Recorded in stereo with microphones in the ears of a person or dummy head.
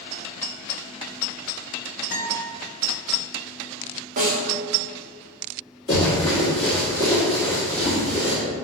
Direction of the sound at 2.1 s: 45° left (ahead or behind).